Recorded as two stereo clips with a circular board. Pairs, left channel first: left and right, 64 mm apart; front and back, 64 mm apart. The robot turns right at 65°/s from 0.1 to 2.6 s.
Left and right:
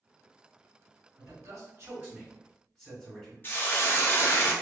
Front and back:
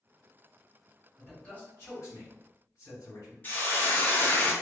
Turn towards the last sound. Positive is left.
turn(degrees=50)